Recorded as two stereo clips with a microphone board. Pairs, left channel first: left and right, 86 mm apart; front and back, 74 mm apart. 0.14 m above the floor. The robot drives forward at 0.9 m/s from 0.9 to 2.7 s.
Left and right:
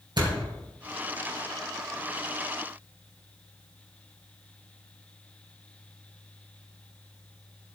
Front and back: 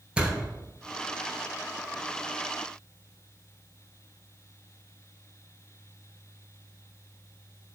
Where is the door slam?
105° right, 2 m.